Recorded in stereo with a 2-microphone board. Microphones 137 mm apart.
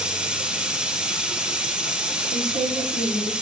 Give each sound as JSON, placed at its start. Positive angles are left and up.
{"t": 0.0, "sound": "running water", "side_deg": -5, "distance_m": 1.1}
{"t": 2.3, "sound": "a woman speaking", "side_deg": -75, "distance_m": 3.0}